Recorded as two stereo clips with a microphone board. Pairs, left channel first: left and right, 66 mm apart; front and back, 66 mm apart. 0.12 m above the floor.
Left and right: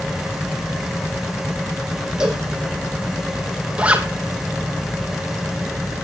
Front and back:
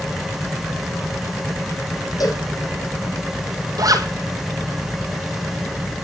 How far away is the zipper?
About 2 m.